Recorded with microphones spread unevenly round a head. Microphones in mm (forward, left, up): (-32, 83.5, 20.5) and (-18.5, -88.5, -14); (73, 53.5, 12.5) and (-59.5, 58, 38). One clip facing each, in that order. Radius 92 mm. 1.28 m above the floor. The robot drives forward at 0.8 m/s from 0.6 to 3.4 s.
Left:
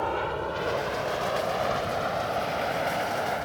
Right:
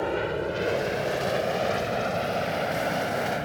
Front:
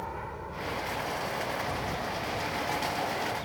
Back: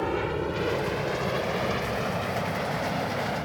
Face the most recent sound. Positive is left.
turn(degrees=-145)